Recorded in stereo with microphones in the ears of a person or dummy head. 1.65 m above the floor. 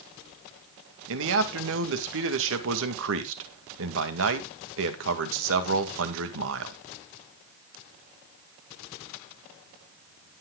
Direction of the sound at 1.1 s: 80° right.